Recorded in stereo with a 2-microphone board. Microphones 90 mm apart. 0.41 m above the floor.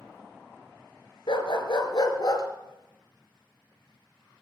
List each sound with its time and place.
1.3 s a dog barking: 65° left (ahead or behind), 2 m; by 2.4 s 40° left (ahead or behind), 2 m